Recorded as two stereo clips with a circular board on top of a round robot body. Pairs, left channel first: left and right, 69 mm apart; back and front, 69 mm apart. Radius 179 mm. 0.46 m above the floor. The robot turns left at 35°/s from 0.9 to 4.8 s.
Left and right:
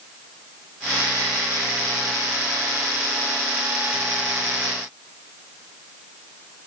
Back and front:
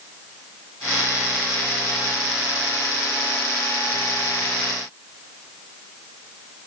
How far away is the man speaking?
I don't hear a man speaking.